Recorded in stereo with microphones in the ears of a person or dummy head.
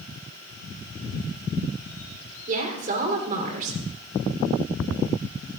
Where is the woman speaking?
50° right (ahead or behind), 3.5 m.